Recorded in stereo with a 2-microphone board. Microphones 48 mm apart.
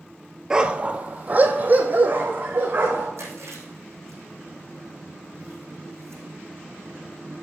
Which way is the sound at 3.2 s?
75° right (ahead or behind).